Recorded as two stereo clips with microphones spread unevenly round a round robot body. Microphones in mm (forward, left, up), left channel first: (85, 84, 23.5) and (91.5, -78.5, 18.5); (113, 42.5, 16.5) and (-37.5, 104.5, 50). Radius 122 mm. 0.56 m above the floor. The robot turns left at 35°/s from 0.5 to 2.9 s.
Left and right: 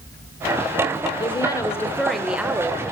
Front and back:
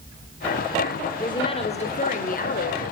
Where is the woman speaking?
35° left, 2 m; by 2.8 s 20° right, 2 m.